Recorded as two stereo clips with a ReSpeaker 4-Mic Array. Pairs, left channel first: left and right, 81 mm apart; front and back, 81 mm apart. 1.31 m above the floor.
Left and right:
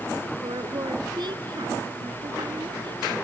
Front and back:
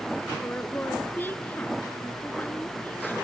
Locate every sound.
0.4 s a woman speaking: 65° right